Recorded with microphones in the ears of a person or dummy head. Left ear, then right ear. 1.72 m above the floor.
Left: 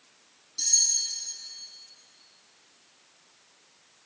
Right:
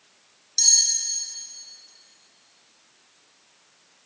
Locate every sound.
0.6 s cutlery clinking: 50° right (ahead or behind), 2.5 m